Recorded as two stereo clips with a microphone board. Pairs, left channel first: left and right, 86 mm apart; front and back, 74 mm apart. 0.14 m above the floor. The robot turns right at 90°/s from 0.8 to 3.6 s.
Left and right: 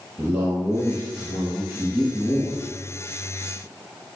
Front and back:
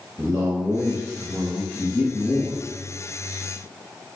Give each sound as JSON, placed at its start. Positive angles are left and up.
{"t": 0.2, "sound": "a man speaking", "azimuth_deg": -130, "distance_m": 1.5}